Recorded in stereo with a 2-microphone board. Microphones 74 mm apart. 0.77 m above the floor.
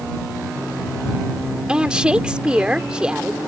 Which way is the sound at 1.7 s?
10° right (ahead or behind).